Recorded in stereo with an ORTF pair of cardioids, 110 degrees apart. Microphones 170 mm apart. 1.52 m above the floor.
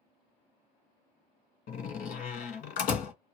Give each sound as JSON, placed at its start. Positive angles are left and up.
{"t": 1.7, "sound": "a door slam", "azimuth_deg": 60, "distance_m": 1.2}